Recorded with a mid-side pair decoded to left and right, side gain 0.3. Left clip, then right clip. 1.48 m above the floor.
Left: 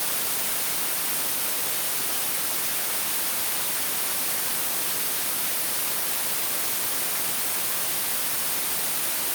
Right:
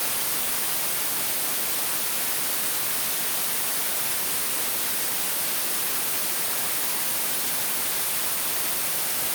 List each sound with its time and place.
Only background noise.